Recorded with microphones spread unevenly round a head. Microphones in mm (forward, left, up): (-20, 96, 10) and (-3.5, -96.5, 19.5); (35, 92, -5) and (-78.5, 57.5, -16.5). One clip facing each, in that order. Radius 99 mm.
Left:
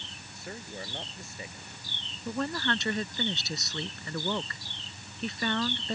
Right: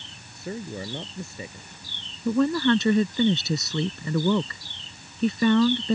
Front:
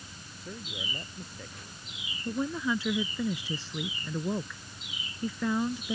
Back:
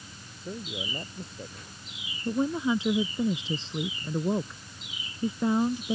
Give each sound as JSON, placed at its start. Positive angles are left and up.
{"t": 0.3, "sound": "a man speaking", "azimuth_deg": -85}
{"t": 2.2, "sound": "a woman speaking", "azimuth_deg": -85}